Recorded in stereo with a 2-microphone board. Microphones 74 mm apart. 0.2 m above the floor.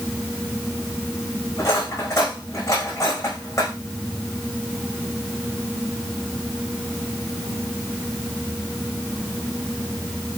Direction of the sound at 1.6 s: 45° left (ahead or behind).